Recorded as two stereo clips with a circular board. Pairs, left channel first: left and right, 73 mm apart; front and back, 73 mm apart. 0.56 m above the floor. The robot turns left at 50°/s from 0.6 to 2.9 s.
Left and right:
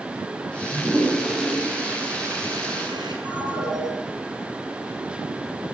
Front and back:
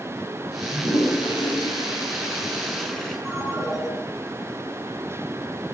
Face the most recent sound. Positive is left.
turn(degrees=-90)